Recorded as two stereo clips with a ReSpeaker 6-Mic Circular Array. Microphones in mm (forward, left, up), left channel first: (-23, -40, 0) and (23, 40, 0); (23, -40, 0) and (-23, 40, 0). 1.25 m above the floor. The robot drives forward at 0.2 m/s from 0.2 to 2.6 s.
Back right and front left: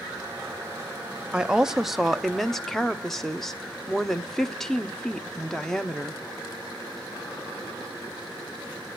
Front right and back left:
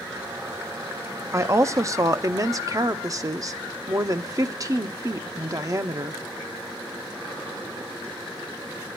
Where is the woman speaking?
130° left, 0.5 m; by 6.2 s 155° left, 0.7 m.